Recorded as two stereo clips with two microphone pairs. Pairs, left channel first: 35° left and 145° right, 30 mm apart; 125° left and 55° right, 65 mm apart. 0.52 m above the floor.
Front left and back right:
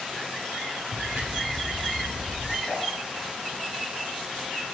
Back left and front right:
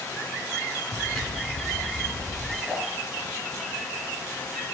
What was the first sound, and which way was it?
Footsteps, 160° right.